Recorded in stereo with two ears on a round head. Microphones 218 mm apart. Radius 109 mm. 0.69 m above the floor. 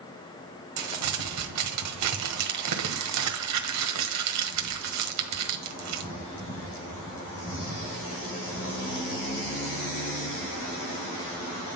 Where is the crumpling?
75° right (ahead or behind), 1.4 m.